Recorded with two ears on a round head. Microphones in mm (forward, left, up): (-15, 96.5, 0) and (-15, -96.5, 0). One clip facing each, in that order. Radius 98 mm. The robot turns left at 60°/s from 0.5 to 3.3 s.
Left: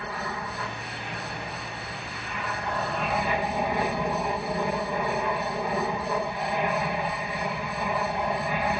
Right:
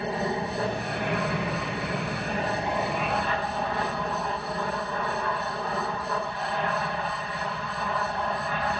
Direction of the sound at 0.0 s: 25° right.